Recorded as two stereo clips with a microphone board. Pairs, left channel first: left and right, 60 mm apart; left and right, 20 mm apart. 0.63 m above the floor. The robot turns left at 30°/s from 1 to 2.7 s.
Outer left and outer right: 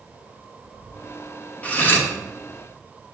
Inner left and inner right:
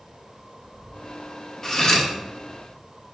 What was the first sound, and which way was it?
Cutlery clinking, 25° left (ahead or behind).